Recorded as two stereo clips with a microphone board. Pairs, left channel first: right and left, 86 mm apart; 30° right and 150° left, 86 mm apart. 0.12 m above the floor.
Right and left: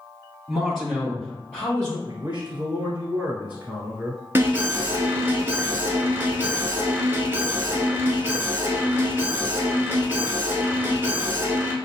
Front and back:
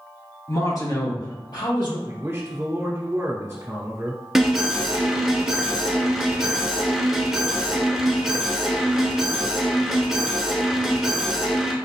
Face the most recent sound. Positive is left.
turn(degrees=70)